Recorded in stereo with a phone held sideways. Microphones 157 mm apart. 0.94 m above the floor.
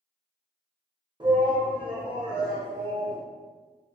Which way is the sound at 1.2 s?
30° right (ahead or behind).